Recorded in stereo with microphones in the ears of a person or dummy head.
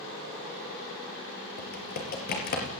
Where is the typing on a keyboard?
50° left (ahead or behind), 5.5 m.